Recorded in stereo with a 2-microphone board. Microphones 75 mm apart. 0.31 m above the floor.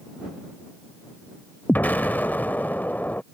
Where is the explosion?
25° left (ahead or behind).